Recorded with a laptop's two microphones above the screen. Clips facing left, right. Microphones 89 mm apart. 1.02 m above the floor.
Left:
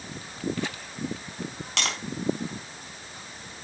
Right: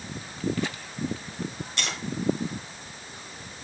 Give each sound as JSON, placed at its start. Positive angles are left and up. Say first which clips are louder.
{"t": 1.8, "sound": "tapping", "louder": "left 3 dB", "side_deg": 85, "distance_m": 4.0}